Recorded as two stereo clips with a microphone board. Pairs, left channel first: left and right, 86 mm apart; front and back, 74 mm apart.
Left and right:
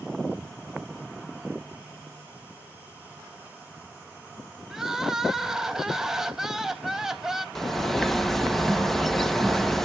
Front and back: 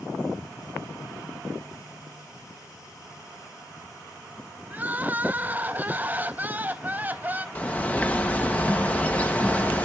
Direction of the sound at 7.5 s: 10° left.